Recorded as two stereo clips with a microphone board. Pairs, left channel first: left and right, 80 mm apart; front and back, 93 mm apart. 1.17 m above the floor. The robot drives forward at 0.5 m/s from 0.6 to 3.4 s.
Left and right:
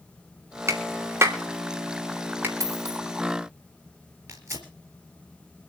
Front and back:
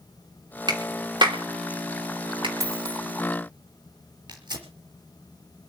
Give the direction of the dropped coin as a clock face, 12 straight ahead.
4 o'clock.